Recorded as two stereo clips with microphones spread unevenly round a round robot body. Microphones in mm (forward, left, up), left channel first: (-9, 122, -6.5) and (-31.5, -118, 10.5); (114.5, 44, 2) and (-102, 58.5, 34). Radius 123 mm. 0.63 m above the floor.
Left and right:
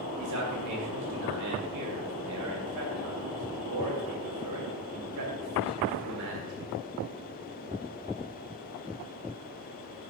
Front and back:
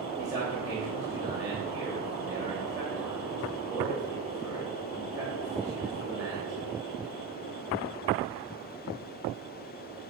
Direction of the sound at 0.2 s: 105° right.